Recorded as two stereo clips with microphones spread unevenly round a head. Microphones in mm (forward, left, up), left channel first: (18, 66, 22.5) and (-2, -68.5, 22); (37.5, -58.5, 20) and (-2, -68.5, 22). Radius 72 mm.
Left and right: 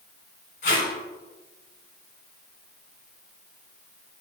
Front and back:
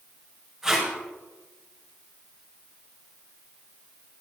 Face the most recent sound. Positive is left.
turn(degrees=105)